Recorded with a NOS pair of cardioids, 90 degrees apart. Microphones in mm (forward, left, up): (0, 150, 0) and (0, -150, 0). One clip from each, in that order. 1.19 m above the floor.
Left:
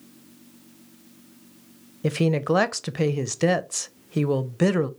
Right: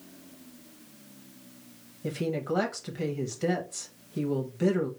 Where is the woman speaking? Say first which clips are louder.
Left 8 dB; 55° left, 0.5 m.